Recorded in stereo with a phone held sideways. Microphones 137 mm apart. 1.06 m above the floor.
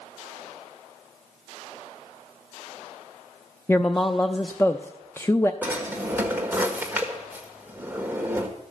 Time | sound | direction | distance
3.7 | a woman speaking | 20° left (ahead or behind) | 0.5 m
5.6 | a drawer | 15° right (ahead or behind) | 1.5 m